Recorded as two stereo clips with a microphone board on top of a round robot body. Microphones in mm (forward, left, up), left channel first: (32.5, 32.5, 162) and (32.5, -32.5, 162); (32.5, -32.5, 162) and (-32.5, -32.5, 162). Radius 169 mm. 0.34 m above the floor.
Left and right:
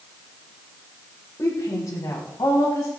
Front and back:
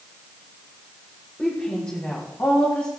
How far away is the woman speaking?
About 2.5 m.